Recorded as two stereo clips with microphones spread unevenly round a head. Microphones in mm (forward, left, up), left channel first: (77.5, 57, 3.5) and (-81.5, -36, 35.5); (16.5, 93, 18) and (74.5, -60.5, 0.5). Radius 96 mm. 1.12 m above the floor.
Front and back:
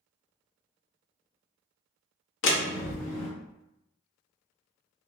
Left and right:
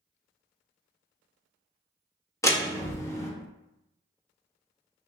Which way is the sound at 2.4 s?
35° left.